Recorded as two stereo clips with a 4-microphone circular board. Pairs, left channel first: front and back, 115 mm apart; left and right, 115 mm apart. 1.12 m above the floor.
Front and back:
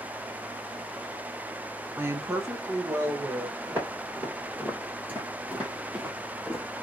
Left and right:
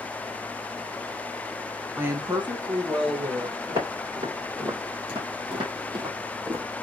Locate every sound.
2.0 s a woman speaking: 150° right, 0.6 m; by 3.6 s 120° right, 1.9 m
3.7 s footsteps: 110° right, 3 m; by 6.7 s 100° right, 1.3 m